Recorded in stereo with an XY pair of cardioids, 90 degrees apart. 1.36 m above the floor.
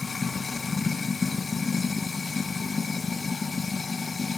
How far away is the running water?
About 1.0 m.